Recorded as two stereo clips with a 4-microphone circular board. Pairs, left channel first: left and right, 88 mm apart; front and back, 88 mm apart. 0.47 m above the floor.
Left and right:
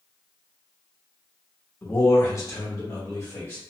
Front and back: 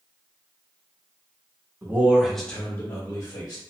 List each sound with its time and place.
1.8 s a man speaking: 135° left, 1.0 m; by 3.6 s 30° left, 1.6 m